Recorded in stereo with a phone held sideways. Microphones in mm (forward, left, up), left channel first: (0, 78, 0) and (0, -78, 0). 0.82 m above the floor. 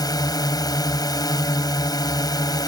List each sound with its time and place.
0.0 s a drone: 25° left (ahead or behind)